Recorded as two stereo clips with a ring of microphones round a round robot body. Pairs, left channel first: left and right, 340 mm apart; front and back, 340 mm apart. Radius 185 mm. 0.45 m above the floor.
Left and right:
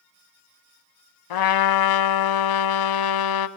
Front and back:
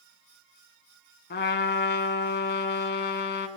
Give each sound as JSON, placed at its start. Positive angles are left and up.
{"t": 1.3, "sound": "a trumpet", "azimuth_deg": 65, "distance_m": 0.8}